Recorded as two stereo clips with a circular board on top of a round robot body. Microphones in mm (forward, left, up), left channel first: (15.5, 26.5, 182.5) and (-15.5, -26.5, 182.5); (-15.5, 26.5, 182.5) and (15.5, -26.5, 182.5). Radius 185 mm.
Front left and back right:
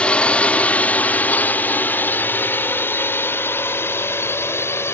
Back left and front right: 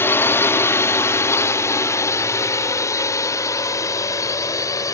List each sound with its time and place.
0.0 s a drone: 120° left; by 5.0 s 105° left